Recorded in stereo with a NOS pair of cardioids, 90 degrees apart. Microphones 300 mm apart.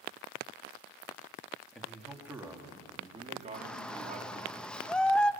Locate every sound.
1.7 s a man speaking: straight ahead, 3 m; by 4.5 s 30° right, 3.5 m
3.5 s a shout: 5° left, 0.9 m